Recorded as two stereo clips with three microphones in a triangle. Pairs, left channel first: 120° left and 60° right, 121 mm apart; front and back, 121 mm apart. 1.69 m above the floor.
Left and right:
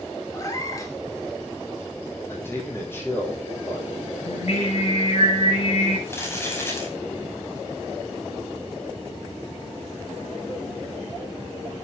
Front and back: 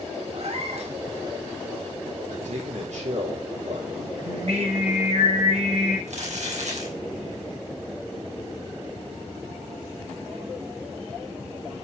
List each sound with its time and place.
0.3 s a cat meowing: 175° left, 2 m
2.3 s a man speaking: 170° right, 4 m
4.2 s singing: 150° left, 5.5 m
6.1 s crumpling: 170° right, 5 m